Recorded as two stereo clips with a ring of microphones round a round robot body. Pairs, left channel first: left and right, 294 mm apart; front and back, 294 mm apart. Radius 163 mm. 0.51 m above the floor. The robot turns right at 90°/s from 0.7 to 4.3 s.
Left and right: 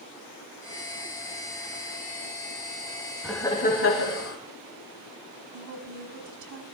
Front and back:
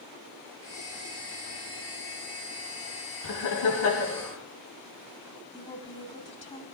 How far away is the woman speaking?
About 3.5 m.